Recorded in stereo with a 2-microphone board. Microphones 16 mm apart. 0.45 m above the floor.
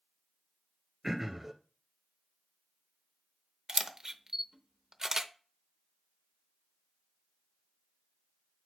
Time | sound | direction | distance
1.0 | throat clearing | 20° right (ahead or behind) | 1.7 m
3.7 | a camera shutter | 40° right (ahead or behind) | 0.7 m